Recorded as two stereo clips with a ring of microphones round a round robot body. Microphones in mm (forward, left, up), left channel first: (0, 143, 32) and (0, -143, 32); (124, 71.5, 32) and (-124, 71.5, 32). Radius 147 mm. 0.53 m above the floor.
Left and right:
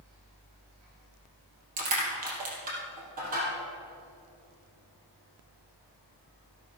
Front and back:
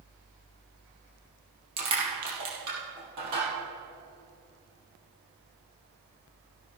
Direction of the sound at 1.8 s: 155° right.